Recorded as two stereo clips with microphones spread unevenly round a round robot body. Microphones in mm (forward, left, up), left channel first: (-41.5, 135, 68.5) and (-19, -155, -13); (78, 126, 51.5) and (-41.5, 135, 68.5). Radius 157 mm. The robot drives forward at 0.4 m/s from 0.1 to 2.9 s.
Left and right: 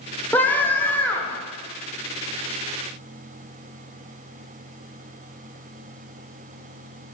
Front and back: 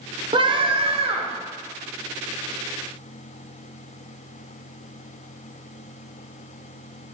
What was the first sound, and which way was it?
A scream, 160° right.